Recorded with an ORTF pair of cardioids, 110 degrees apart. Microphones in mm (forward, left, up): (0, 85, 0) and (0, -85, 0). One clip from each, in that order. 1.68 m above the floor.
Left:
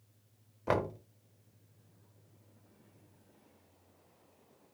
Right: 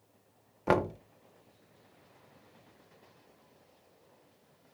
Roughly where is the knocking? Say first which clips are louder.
Right 4 dB; ahead right.